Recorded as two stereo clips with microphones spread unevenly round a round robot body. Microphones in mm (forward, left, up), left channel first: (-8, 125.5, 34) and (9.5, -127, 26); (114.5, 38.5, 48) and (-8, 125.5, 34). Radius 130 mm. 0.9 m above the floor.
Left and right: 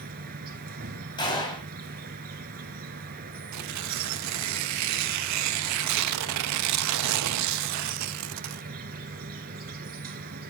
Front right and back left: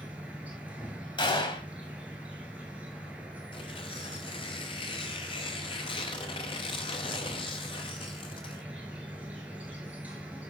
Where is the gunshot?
20° left, 2.5 m.